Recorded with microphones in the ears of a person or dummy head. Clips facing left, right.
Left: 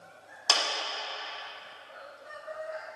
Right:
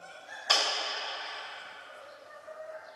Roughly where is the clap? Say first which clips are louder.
Even; left.